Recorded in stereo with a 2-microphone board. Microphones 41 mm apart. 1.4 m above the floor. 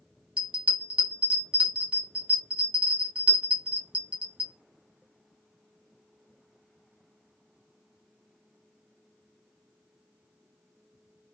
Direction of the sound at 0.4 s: 30° right (ahead or behind).